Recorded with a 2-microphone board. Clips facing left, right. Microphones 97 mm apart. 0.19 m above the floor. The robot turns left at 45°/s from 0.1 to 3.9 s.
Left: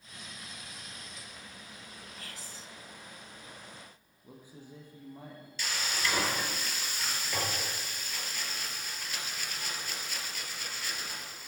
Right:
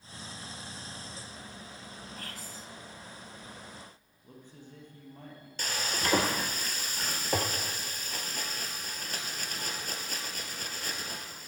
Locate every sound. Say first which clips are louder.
2.2 s whispering: right 3 dB; 55° right (ahead or behind), 2.5 m; by 2.7 s 45° right (ahead or behind), 2.5 m
4.2 s a man speaking: left 1 dB; 10° left (ahead or behind), 4.5 m
5.6 s frying: right 2 dB; 45° right (ahead or behind), 2 m